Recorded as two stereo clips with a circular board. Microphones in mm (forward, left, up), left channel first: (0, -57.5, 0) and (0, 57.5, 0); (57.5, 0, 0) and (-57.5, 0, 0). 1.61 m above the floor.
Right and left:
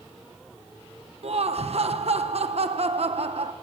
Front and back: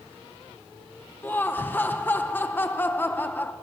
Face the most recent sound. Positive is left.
turn(degrees=70)